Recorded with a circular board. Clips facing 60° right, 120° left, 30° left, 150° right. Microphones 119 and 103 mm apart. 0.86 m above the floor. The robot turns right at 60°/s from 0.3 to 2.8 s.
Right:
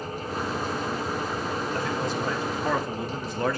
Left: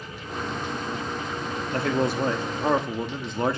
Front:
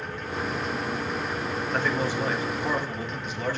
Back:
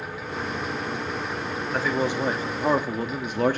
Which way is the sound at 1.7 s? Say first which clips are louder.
Left 8 dB, back 3 dB; 120° left.